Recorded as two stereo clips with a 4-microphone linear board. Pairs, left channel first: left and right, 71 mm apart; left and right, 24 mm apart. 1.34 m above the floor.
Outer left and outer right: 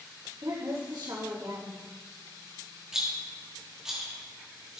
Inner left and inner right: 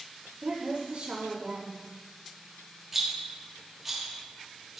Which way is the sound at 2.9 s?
5° right (ahead or behind).